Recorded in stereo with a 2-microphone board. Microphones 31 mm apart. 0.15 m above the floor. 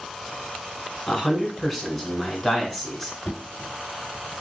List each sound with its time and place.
1.1 s a man speaking: 10° left (ahead or behind), 1.3 m
3.2 s knocking: 50° left (ahead or behind), 1.6 m